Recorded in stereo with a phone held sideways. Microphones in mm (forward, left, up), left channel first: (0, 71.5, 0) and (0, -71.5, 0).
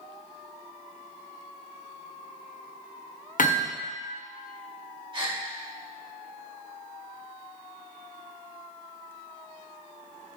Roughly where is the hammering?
Left.